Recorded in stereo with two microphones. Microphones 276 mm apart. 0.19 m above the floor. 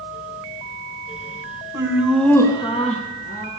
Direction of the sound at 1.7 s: 15° right (ahead or behind).